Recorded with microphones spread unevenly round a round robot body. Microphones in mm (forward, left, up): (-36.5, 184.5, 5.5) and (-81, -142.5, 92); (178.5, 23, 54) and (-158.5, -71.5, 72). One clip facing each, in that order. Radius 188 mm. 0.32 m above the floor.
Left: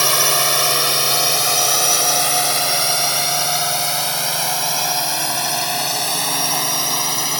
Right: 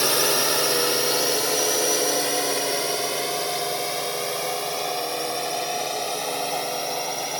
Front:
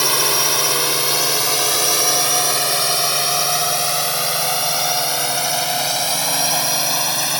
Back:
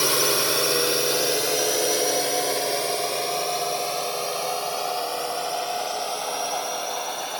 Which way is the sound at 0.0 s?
85° left.